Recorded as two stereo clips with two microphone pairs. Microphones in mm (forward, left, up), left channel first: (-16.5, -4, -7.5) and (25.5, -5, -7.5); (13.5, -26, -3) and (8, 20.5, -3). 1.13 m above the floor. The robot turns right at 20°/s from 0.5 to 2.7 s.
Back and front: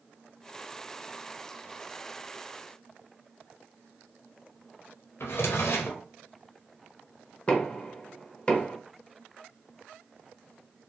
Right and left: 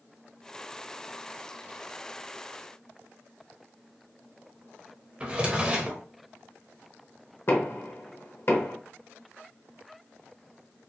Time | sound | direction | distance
5.2 | a drawer | 160° left | 0.7 m
7.5 | knocking | 120° right | 0.8 m